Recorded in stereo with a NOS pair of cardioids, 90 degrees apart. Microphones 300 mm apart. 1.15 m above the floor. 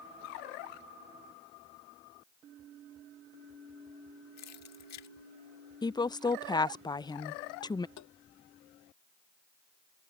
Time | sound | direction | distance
4.4 | keys jangling | 60° left | ?
5.8 | a woman speaking | 15° left | ?
8.0 | tapping | 70° left | ?